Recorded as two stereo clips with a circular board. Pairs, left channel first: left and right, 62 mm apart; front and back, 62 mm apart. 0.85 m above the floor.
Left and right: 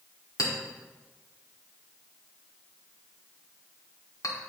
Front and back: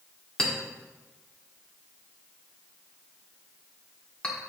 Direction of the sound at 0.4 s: 70° left.